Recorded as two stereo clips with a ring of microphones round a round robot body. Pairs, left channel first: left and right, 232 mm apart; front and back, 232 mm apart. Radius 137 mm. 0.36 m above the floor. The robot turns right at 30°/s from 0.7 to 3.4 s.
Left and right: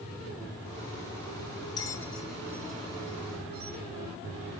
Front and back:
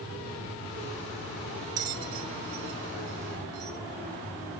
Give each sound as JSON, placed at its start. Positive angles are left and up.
{"t": 1.8, "sound": "a bell", "azimuth_deg": 165, "distance_m": 1.2}